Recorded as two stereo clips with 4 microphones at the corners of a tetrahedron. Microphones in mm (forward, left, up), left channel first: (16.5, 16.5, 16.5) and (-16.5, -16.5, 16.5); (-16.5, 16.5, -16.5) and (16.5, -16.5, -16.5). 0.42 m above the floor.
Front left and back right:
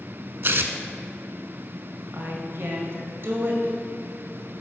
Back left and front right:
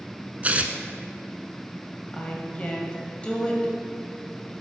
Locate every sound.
0.4 s tearing paper: 100° right, 0.6 m
2.1 s a woman speaking: 160° right, 1.8 m